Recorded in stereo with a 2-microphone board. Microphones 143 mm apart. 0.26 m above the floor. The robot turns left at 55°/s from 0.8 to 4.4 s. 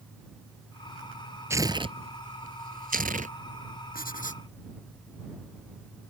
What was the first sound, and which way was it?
Tearing paper, 20° right (ahead or behind).